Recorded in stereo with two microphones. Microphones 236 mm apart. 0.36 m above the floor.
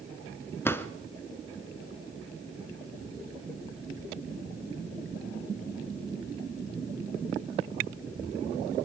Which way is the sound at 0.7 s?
10° left (ahead or behind).